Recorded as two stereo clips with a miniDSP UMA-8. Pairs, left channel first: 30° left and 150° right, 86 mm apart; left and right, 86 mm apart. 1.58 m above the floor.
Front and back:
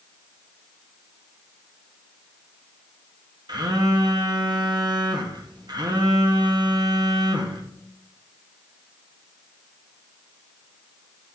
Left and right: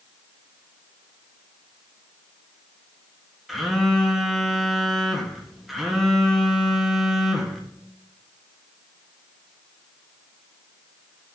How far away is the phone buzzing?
About 0.9 m.